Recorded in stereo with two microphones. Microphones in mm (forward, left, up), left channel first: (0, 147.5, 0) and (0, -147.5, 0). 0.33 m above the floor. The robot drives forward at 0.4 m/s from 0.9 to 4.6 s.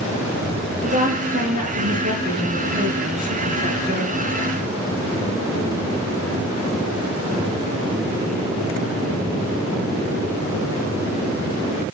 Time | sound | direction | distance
0.8 | a woman speaking | 25° right (ahead or behind) | 7.5 m